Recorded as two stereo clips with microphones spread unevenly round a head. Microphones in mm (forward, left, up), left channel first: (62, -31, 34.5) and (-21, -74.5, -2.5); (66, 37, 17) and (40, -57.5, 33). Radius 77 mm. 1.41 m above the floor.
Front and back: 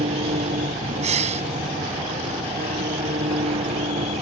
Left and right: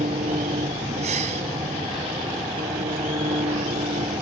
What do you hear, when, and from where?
0.0 s an engine running: 145° right
1.0 s breathing: 150° right